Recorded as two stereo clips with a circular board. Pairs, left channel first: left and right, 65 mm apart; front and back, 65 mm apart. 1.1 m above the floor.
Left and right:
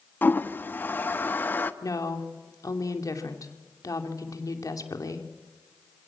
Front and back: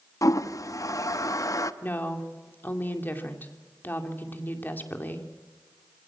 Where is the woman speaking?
60° left, 2.5 m.